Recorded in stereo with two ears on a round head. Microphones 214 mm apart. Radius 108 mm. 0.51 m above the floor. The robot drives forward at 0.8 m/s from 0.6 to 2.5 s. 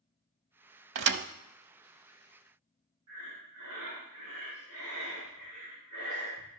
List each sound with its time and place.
0.9 s a thud: 55° right (ahead or behind), 0.7 m; by 1.2 s 40° right (ahead or behind), 0.8 m
3.1 s breathing: 80° right, 6.5 m